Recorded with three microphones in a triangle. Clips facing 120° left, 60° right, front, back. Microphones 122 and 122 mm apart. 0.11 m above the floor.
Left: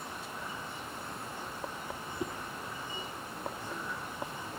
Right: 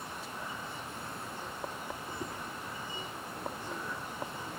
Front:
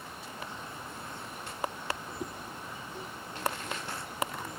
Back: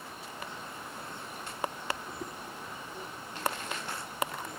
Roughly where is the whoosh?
Left.